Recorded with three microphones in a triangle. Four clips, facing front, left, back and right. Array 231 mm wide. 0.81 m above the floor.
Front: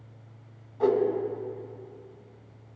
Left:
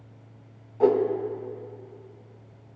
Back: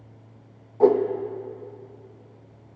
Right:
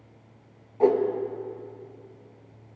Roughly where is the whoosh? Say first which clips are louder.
Even, back 6 dB; behind.